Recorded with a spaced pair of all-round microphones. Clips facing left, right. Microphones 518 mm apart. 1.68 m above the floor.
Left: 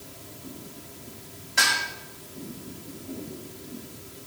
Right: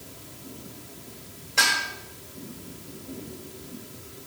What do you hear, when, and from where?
1.6 s dishes clattering: 35° left (ahead or behind), 4 m